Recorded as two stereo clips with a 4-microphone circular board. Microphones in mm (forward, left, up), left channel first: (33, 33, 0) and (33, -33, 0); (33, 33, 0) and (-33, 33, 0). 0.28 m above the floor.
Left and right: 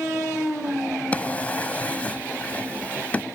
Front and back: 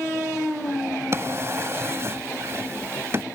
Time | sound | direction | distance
1.1 | a drawer | 150° left | ?